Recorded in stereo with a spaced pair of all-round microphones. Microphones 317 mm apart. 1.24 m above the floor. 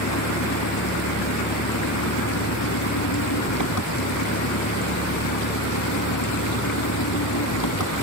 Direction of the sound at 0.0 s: 75° left (ahead or behind).